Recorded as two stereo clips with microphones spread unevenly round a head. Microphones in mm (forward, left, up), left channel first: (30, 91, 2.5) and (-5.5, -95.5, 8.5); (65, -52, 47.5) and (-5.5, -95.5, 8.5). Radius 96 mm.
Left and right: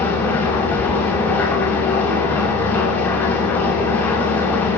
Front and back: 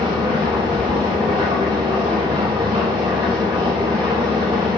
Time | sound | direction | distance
0.0 | an engine running | 160° left | 6.5 m